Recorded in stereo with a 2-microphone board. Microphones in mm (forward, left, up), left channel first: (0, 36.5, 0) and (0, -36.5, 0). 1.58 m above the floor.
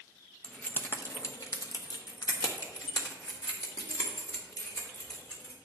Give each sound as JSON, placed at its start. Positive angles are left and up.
{"t": 0.4, "sound": "keys jangling", "side_deg": 15, "distance_m": 0.9}